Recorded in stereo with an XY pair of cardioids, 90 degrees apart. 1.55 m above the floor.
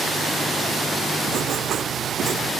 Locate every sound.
1.3 s writing: 65° right, 1.4 m